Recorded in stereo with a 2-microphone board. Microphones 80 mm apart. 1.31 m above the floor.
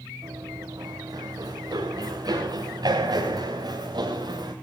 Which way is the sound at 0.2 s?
50° right (ahead or behind).